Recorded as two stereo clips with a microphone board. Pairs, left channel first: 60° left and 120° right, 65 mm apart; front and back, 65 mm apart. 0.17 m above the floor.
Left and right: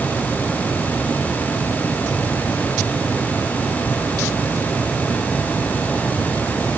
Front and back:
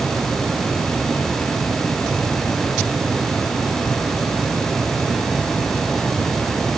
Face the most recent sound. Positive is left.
No sound to turn to.